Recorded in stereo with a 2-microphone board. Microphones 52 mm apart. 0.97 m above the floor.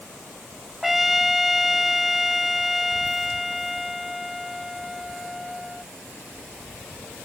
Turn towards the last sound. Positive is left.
turn(degrees=-5)  # may be behind; listen again after turning